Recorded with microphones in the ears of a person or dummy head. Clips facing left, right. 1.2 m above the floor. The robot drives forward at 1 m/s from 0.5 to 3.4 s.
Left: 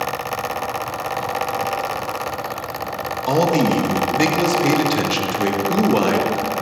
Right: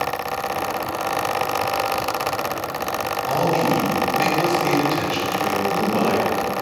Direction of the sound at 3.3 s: 60° left (ahead or behind).